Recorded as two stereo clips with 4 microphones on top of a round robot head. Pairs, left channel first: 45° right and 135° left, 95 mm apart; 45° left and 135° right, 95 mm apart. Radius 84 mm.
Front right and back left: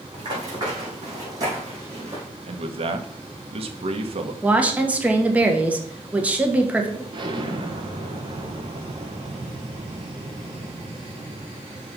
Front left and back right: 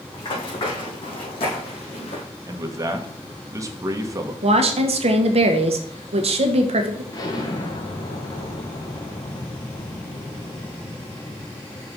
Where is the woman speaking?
145° right, 1.3 m.